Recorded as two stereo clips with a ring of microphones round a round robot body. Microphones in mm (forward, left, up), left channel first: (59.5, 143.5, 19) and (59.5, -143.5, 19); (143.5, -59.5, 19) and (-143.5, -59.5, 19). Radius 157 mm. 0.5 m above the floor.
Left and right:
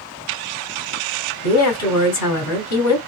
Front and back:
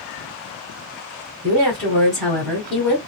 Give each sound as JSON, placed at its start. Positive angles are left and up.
{"t": 1.4, "sound": "a woman speaking", "azimuth_deg": 90, "distance_m": 1.9}